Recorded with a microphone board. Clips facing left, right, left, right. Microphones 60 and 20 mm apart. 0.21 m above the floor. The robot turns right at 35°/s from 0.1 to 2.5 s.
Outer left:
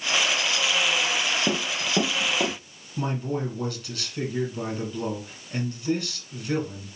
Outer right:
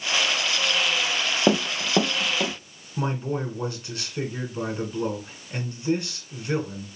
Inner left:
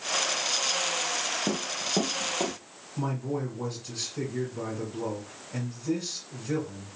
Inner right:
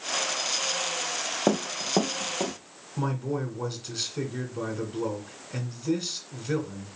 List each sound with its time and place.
1.5 s running footsteps: 70° right (ahead or behind), 0.6 m; by 2.5 s 10° left (ahead or behind), 1.5 m
3.0 s a man speaking: 30° right (ahead or behind), 1.9 m